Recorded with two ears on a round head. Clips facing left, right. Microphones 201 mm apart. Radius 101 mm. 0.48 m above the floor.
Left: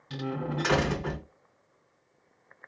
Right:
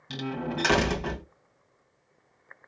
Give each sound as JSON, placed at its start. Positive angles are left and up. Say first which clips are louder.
{"t": 0.1, "sound": "a door slam", "louder": "right 1 dB", "side_deg": -60, "distance_m": 1.8}